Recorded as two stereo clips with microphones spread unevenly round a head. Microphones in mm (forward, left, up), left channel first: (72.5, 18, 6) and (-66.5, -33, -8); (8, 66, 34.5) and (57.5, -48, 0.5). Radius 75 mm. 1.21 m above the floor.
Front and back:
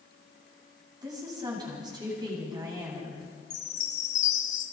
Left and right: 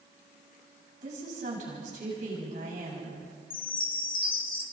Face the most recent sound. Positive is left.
turn(degrees=65)